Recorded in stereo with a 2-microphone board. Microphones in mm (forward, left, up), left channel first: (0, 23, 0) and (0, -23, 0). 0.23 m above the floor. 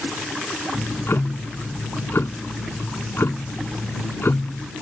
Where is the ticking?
60° left (ahead or behind).